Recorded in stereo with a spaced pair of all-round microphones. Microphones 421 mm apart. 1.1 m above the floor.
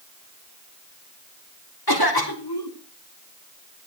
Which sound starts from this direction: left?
A cough, at 1.9 s.